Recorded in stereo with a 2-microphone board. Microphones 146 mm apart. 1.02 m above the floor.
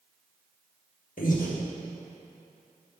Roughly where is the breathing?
Left.